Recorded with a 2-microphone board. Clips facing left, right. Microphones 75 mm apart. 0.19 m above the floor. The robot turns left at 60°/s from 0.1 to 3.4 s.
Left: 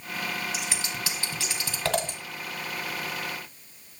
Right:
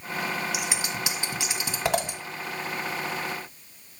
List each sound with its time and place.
0.5 s scissors: 15° right (ahead or behind), 1.5 m; by 2.2 s 10° right (ahead or behind), 1.5 m